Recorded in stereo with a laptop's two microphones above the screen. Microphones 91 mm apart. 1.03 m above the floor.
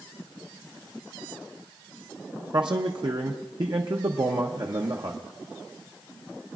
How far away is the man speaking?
About 0.7 m.